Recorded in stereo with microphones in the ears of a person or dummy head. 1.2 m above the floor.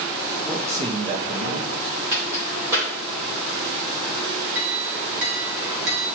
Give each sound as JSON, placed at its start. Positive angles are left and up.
{"t": 0.4, "sound": "a man speaking", "side_deg": 0, "distance_m": 0.9}
{"t": 2.1, "sound": "a crack", "side_deg": -15, "distance_m": 2.5}
{"t": 4.5, "sound": "a clink", "side_deg": -60, "distance_m": 1.8}